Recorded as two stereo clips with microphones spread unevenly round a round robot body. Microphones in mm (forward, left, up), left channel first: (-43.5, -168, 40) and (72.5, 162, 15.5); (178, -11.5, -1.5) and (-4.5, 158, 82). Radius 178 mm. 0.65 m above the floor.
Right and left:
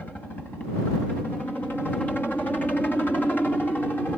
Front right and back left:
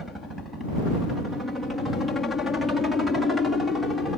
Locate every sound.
0.0 s a helicopter: 25° right